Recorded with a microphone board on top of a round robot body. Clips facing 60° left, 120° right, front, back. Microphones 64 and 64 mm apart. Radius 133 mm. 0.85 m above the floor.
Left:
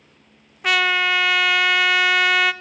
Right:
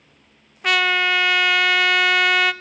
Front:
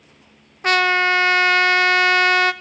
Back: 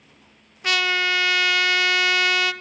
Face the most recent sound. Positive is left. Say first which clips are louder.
# even, front 6 dB
turn(degrees=-30)